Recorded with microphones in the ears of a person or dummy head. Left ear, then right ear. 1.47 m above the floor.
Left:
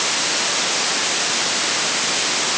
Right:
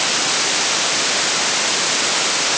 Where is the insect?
No insect in this recording.